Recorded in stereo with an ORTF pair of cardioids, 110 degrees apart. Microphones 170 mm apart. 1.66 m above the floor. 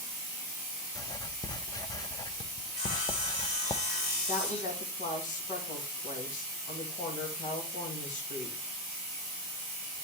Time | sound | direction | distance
0.9 | writing | 25° left | 0.5 m
2.7 | sawing | 45° left | 3.5 m
4.3 | a woman speaking | 50° left | 2 m